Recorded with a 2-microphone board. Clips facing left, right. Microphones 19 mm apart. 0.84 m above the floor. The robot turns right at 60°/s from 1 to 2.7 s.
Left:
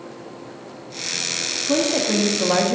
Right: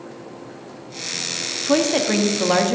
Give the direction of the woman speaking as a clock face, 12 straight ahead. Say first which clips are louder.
Right 2 dB; 2 o'clock.